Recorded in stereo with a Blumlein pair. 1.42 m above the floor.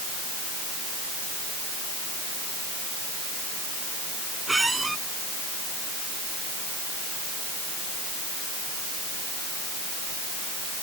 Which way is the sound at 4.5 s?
10° right.